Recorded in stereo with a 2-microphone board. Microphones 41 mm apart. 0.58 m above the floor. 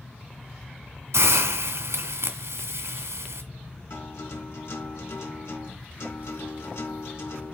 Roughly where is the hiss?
Right.